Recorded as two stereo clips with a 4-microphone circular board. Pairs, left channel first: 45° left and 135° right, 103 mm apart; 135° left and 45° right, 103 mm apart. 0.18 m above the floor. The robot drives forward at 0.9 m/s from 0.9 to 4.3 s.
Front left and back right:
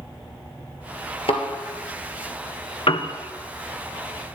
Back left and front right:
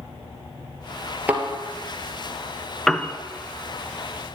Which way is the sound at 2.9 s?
50° left.